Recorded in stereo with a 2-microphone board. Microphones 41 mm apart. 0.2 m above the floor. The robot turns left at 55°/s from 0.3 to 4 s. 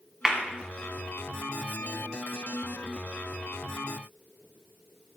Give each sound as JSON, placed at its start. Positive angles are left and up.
{"t": 0.2, "sound": "a clap", "side_deg": -20, "distance_m": 1.6}